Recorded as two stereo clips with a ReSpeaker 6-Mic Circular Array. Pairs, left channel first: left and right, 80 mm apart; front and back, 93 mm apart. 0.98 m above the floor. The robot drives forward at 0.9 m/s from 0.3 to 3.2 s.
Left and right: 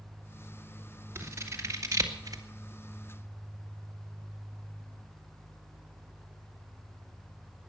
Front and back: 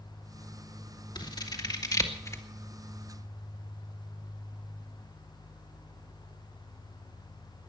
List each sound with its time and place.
1.1 s scissors: 30° right, 2.5 m; by 2.4 s 55° right, 1.7 m